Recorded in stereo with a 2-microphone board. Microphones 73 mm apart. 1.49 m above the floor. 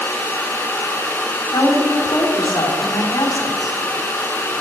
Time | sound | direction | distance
1.5 | a woman speaking | 85° left | 4.5 m